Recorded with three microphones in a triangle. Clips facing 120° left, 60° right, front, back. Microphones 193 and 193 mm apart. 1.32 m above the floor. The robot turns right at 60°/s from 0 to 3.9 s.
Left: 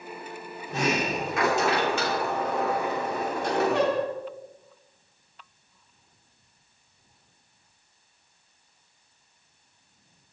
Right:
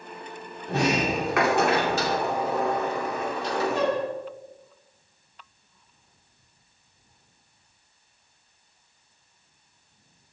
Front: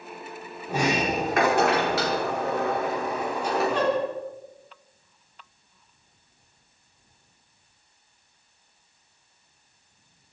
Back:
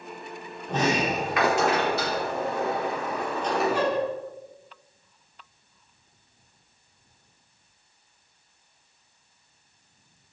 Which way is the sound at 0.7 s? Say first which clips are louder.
Right 3 dB, even; 85° right.